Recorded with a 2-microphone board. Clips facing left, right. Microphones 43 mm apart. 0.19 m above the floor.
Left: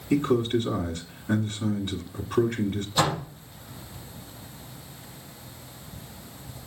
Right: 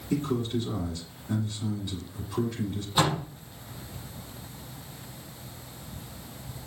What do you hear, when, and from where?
0.1 s a man speaking: 45° left (ahead or behind), 2 m
3.0 s a door slam: 15° right (ahead or behind), 5.5 m